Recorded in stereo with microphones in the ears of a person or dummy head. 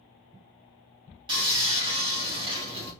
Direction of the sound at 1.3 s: 25° right (ahead or behind).